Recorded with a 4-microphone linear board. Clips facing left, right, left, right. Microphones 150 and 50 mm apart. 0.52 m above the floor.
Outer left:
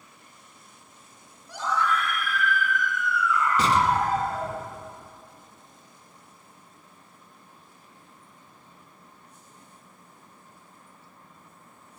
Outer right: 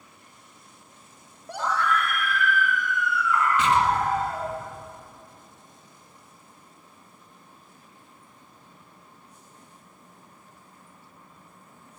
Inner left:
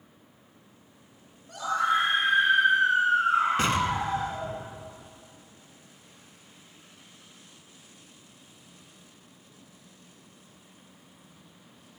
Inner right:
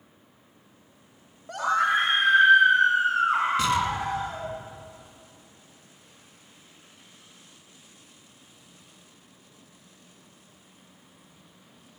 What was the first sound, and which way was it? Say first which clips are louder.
A scream: outer right 1 dB, inner right 3 dB; 60° right (ahead or behind).